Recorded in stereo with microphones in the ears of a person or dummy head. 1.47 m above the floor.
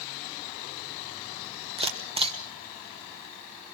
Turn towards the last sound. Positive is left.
turn(degrees=-30)  # may be behind; listen again after turning